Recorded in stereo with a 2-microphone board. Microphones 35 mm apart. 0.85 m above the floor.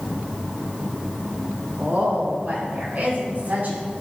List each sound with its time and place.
1.8 s a woman speaking: 55° right (ahead or behind), 3.5 m